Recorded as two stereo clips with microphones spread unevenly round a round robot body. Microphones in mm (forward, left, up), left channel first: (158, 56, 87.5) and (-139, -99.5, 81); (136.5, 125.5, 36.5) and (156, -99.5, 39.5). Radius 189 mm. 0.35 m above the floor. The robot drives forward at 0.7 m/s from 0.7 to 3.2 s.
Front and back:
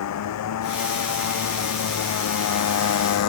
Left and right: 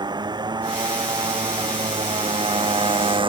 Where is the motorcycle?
15° right.